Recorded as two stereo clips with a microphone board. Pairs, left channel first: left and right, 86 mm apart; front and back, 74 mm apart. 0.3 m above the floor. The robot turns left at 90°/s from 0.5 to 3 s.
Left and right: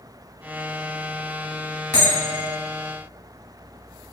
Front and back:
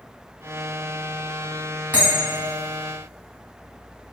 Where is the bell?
140° left, 1.6 m; by 2.5 s 90° left, 1.6 m.